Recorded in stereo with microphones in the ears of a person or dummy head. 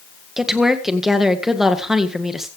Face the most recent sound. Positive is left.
turn(degrees=-5)  # may be behind; listen again after turning